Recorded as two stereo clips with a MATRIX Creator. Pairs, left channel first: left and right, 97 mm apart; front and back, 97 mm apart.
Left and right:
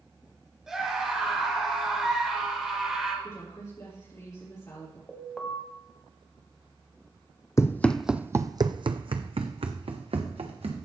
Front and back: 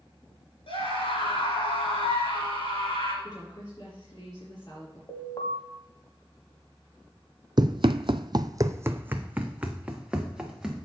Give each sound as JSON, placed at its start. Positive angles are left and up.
{"t": 0.7, "sound": "a scream", "azimuth_deg": -5, "distance_m": 4.0}
{"t": 3.2, "sound": "a woman speaking", "azimuth_deg": 45, "distance_m": 4.5}
{"t": 5.1, "sound": "an alarm", "azimuth_deg": 10, "distance_m": 1.3}
{"t": 7.6, "sound": "running footsteps", "azimuth_deg": 145, "distance_m": 0.6}